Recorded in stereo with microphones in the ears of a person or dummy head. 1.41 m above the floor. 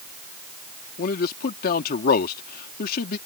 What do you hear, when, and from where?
1.0 s a man speaking: 55° left (ahead or behind)